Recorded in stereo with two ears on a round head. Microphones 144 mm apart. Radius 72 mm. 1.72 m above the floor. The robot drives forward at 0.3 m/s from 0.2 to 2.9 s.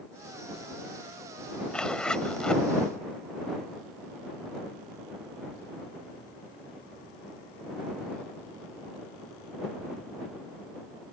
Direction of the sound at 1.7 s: 5° left (ahead or behind).